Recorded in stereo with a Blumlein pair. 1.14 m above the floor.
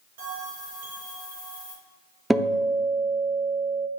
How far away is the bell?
About 3.5 m.